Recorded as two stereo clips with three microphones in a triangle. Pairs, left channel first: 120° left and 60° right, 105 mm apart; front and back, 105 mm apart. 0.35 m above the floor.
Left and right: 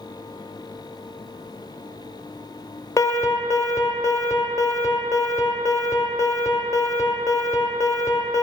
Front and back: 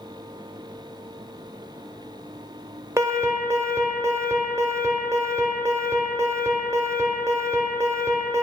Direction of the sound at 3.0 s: 145° left.